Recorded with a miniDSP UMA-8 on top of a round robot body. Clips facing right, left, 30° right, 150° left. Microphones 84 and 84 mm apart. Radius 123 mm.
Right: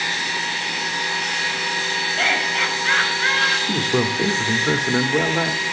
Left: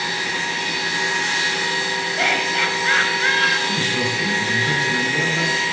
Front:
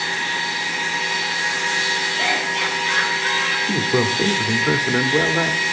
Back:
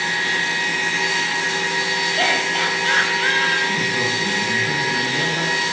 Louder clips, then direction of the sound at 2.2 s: Left 1 dB, back 3 dB; 175° left.